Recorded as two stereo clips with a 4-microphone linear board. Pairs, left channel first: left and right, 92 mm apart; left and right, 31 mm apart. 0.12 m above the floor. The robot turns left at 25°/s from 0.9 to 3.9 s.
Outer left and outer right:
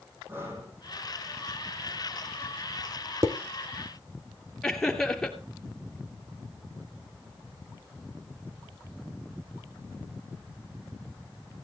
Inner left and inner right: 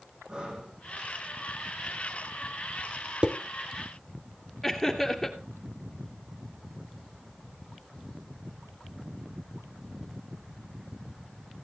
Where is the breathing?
25° right (ahead or behind), 6.5 m.